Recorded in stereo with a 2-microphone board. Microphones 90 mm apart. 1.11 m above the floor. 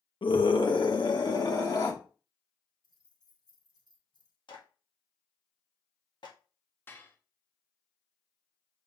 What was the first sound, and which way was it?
A scream, 75° left (ahead or behind).